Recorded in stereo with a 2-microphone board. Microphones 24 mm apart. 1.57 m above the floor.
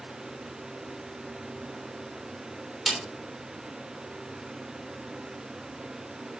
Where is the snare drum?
15° right (ahead or behind), 3 m.